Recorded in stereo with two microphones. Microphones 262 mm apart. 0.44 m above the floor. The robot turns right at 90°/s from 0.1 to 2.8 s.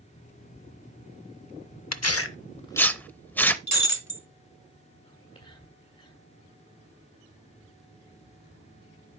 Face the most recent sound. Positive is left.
turn(degrees=25)  # may be behind; listen again after turning